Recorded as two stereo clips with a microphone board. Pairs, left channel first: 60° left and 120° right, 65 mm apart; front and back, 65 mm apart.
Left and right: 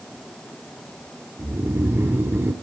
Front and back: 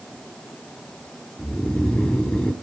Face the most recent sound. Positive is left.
turn(degrees=-75)